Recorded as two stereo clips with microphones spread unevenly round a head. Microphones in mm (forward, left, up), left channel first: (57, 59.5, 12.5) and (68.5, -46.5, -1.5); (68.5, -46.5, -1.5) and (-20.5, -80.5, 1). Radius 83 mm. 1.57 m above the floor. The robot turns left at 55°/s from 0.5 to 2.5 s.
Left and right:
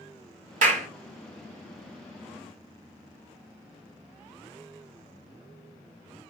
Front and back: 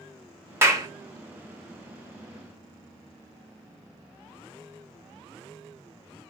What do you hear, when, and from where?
0.6 s a clap: 95° right, 1.3 m; by 0.9 s 110° right, 1.3 m